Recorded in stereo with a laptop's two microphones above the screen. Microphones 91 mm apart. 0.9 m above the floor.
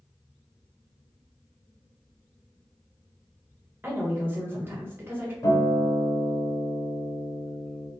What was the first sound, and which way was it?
A woman speaking, 20° right (ahead or behind).